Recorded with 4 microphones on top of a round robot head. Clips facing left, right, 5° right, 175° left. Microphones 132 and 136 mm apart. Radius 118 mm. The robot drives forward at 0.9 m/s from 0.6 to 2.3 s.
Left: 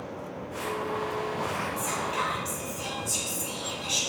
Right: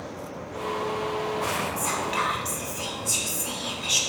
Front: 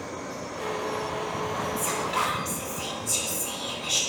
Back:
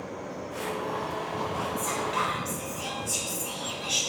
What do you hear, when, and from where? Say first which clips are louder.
1.8 s whispering: right 2 dB, front 1 dB; 80° right, 1.6 m; by 4.0 s 100° right, 1.6 m